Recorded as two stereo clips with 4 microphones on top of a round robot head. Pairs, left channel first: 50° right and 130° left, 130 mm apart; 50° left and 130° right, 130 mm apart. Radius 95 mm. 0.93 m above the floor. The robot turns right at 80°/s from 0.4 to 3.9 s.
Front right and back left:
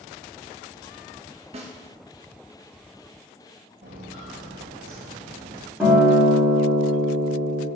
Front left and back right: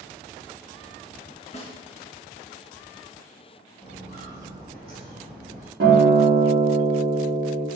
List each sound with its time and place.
1.5 s a snare drum: 90° left, 0.8 m; by 1.7 s 105° left, 0.8 m
3.8 s footsteps: 130° left, 1.3 m; by 5.7 s 160° right, 1.8 m
5.8 s a guitar: 145° right, 1.7 m